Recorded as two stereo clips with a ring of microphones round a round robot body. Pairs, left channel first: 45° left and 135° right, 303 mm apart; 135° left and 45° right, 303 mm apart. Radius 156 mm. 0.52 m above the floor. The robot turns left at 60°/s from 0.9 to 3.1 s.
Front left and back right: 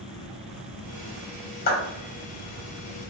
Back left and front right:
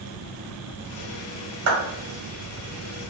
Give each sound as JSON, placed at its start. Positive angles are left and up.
{"t": 1.7, "sound": "a clap", "azimuth_deg": -15, "distance_m": 1.7}